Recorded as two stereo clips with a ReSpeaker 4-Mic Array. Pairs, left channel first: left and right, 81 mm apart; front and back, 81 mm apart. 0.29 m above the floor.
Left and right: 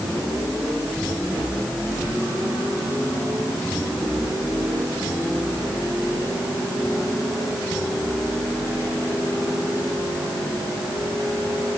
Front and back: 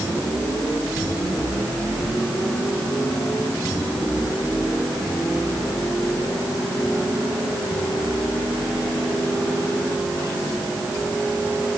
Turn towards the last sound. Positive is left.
No sound to turn to.